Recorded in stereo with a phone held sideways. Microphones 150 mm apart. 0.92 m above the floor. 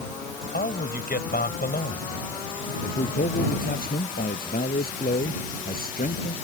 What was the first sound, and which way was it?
A man speaking, 85° left.